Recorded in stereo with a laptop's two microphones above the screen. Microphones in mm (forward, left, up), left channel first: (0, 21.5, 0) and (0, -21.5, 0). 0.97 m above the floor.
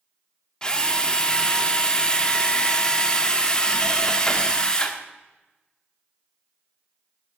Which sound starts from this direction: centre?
A drill, at 0.6 s.